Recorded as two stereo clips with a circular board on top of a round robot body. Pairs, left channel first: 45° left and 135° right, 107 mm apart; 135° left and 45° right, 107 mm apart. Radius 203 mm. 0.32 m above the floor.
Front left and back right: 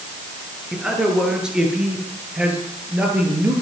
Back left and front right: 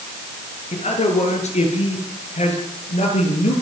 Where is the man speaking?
140° left, 7 m; by 3.5 s 150° left, 8.5 m.